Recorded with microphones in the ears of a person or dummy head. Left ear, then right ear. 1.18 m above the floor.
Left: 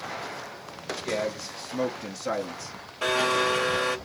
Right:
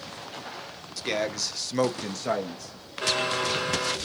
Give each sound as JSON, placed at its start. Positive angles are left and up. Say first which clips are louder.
{"t": 1.0, "sound": "a man speaking", "louder": "right 2 dB", "side_deg": -65, "distance_m": 1.2}
{"t": 3.0, "sound": "a blender", "louder": "left 2 dB", "side_deg": 20, "distance_m": 0.9}